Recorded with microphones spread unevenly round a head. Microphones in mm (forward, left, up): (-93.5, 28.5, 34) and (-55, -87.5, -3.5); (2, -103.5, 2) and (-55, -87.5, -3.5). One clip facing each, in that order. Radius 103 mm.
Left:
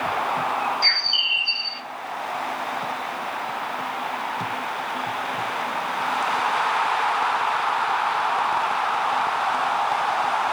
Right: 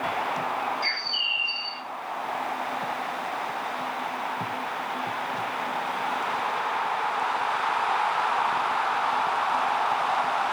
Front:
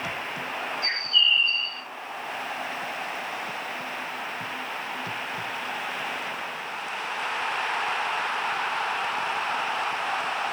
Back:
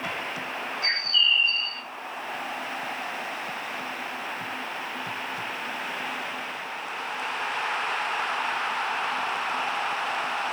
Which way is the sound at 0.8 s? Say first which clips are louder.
Left 3 dB, even; 80° left.